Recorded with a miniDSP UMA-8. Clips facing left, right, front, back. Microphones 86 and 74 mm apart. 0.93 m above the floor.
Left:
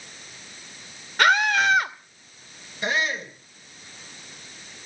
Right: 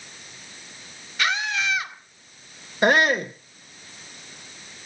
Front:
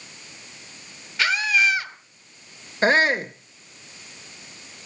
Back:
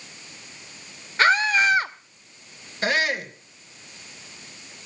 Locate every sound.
1.2 s a scream: 125° left, 1.3 m
2.8 s a shout: 60° right, 0.7 m